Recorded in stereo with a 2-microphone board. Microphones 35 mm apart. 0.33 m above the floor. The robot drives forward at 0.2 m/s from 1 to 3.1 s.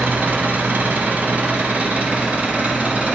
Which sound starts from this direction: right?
An engine running, at 0.0 s.